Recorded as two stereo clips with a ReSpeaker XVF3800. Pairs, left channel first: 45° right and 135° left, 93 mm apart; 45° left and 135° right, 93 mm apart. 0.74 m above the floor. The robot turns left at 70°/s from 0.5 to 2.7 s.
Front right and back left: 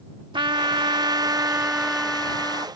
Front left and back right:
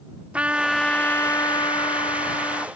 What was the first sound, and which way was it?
A trumpet, 150° left.